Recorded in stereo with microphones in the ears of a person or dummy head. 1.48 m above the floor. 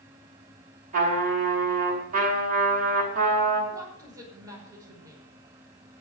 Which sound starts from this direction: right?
A trumpet, at 0.9 s.